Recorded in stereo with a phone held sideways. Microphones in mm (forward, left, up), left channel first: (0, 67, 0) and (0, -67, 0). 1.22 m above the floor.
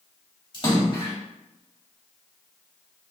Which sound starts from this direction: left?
A splash, at 0.5 s.